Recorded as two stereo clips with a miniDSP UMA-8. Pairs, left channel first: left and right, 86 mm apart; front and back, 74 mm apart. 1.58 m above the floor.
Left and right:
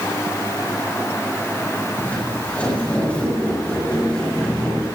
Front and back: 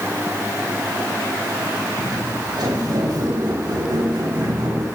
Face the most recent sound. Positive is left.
turn(degrees=170)